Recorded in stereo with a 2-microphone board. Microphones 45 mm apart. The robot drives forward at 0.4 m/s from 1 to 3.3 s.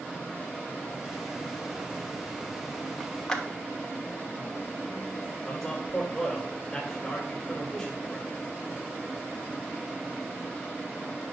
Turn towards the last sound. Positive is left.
turn(degrees=10)  # may be behind; listen again after turning